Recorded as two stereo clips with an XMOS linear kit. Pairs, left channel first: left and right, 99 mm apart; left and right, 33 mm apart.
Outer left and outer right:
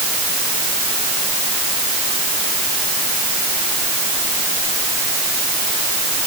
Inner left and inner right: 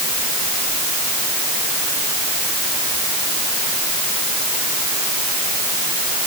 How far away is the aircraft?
No aircraft in this recording.